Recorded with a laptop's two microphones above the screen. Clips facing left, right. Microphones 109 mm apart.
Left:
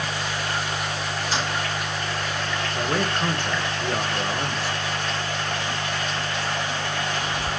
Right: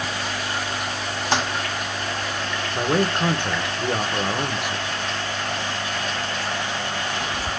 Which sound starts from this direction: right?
A toilet flushing, at 1.3 s.